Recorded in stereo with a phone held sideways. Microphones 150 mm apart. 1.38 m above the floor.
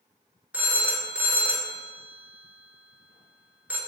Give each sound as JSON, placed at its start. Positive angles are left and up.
{"t": 0.5, "sound": "a phone ringing", "side_deg": -10, "distance_m": 0.6}